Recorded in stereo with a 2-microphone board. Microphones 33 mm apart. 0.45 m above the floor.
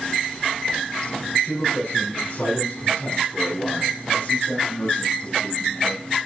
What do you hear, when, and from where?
1.4 s a man speaking: 75° left (ahead or behind), 4.5 m; by 6.1 s 60° left (ahead or behind), 2.5 m